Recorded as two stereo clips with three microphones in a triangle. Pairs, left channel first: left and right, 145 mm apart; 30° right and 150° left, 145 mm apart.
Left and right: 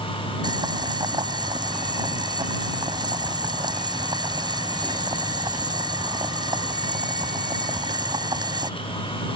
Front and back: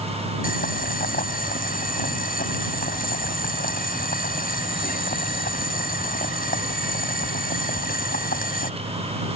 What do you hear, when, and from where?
0.4 s boiling: 30° right